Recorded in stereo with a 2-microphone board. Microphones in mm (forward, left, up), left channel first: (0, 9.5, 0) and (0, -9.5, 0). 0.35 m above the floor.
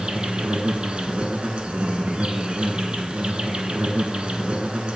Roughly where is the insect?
Right.